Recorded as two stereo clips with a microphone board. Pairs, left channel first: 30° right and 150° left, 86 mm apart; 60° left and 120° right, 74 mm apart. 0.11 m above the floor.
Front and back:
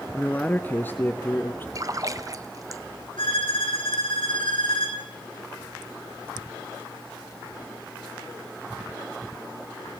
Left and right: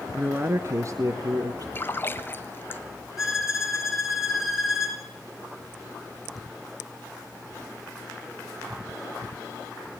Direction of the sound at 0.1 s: 85° right.